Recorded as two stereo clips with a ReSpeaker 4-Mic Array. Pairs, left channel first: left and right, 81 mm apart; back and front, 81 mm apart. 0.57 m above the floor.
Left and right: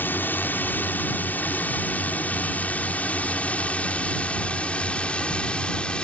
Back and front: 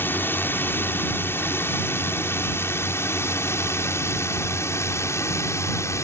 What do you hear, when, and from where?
0.0 s a drone: 140° left; by 6.0 s 160° left